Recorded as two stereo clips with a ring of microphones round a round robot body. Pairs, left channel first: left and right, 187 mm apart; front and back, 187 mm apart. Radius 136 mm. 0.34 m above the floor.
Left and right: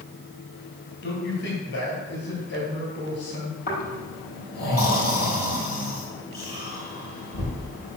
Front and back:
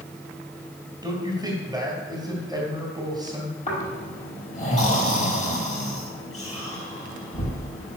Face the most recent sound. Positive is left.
turn(degrees=55)